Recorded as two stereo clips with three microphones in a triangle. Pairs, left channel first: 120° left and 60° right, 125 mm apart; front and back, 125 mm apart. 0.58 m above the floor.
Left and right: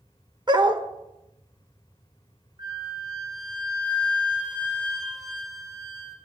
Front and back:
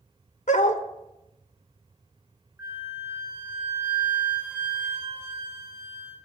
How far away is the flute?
About 1.5 m.